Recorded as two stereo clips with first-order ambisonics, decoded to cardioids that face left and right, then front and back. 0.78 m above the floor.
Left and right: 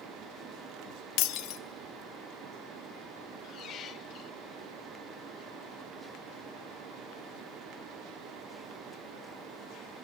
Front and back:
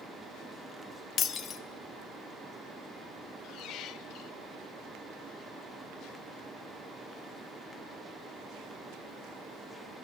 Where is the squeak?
40° left, 1.1 m.